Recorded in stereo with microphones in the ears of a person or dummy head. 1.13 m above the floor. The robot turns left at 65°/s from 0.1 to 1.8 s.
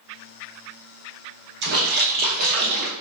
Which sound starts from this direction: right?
A splash, at 1.6 s.